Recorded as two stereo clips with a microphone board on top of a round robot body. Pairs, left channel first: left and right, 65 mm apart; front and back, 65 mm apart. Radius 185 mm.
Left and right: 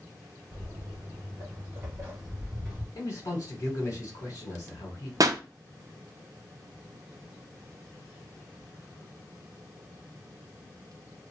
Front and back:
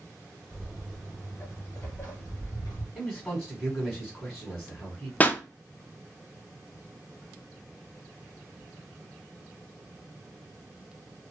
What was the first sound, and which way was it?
Footsteps, 105° right.